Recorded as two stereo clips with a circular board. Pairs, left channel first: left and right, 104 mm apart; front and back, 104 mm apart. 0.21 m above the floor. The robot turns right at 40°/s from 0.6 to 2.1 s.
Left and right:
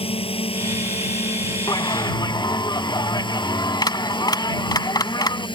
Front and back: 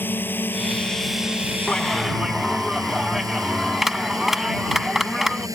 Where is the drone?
70° left; by 5.6 s 125° left.